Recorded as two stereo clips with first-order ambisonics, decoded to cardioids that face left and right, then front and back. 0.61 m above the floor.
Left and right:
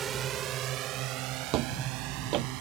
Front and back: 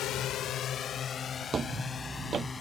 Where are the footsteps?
115° right.